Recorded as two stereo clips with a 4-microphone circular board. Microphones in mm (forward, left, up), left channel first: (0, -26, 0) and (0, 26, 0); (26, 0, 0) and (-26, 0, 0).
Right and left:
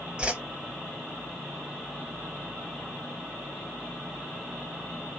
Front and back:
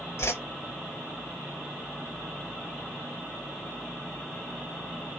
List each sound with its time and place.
0.2 s a whoosh: 25° left, 0.8 m